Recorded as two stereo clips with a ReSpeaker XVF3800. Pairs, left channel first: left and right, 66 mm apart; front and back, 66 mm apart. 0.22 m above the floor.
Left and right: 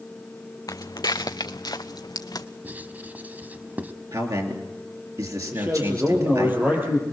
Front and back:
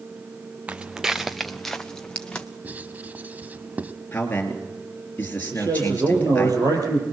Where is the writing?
130° right, 1.0 m.